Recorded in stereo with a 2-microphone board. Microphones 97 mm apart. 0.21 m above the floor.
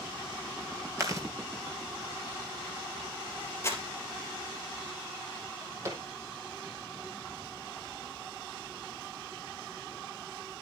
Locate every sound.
1.0 s chewing: 30° right (ahead or behind), 3 m
3.6 s crumpling: 25° left (ahead or behind), 3.5 m
5.4 s a drawer: 35° right (ahead or behind), 5 m